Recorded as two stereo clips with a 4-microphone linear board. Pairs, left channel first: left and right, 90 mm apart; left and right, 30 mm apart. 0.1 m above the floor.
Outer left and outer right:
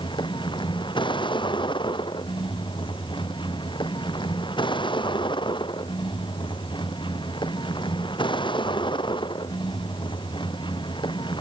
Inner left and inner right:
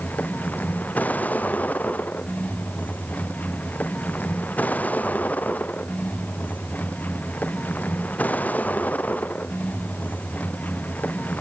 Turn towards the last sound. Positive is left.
turn(degrees=65)  # may be behind; listen again after turning